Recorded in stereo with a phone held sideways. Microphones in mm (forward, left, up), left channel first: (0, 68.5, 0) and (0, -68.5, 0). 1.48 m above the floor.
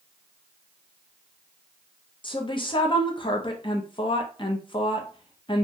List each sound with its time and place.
2.2 s a woman speaking: 35° left (ahead or behind), 0.7 m